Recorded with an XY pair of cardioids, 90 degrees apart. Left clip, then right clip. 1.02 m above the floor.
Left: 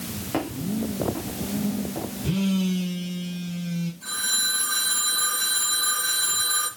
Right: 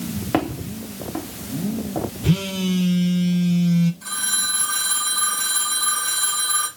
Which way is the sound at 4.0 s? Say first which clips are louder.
Even; 45° right.